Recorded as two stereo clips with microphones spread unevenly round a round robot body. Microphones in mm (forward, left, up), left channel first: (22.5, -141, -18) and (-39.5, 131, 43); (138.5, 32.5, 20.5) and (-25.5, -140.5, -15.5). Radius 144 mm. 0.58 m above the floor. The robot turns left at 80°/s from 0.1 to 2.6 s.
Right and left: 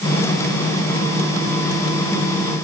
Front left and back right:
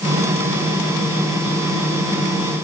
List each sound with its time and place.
Only background noise.